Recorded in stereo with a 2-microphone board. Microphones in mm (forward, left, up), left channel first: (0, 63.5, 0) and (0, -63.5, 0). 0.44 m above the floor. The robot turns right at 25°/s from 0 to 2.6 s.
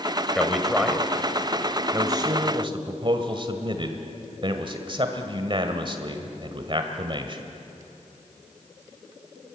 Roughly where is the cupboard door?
I don't hear a cupboard door.